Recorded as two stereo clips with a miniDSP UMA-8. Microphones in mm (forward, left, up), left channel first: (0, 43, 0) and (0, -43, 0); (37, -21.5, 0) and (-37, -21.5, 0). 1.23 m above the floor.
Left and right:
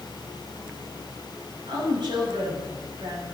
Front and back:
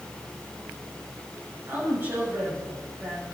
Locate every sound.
1.7 s a woman speaking: 115° right, 8 m